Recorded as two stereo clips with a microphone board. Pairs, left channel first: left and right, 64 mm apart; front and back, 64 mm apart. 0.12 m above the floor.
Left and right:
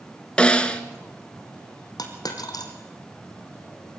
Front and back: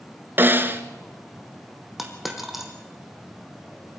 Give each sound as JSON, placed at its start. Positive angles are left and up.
{"t": 0.4, "sound": "a snare drum", "azimuth_deg": 155, "distance_m": 1.3}
{"t": 2.0, "sound": "a dropped coin", "azimuth_deg": 90, "distance_m": 3.0}